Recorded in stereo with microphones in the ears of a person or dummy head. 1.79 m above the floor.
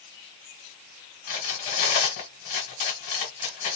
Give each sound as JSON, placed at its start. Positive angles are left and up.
{"t": 1.3, "sound": "cutlery clinking", "side_deg": 45, "distance_m": 1.5}